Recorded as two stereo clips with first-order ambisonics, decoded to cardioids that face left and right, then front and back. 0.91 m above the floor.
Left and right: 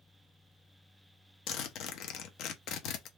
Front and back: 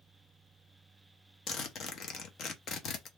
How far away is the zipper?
About 0.7 m.